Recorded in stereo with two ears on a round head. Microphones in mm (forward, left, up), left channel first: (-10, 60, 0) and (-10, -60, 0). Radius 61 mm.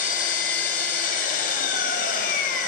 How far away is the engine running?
About 1.2 m.